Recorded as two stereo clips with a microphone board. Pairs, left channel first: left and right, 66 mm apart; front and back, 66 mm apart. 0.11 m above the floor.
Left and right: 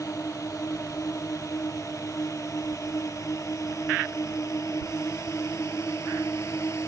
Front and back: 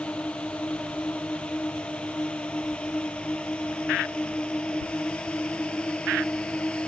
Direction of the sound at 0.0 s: 70° left.